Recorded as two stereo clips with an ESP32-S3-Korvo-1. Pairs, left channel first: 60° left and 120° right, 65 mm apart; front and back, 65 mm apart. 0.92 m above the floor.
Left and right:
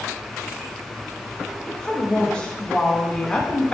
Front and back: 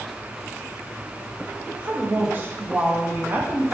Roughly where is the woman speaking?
Behind left.